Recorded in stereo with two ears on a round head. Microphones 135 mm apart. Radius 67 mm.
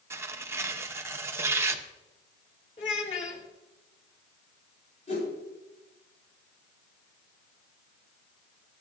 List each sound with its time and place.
0.1 s tearing paper: 15° right (ahead or behind), 0.7 m
2.8 s a child speaking: 40° left (ahead or behind), 2.5 m
5.1 s a whoosh: 45° left (ahead or behind), 7.5 m